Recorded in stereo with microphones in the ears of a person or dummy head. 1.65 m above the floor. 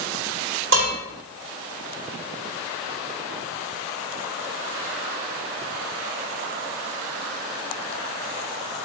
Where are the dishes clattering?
70° right (ahead or behind), 3.5 m.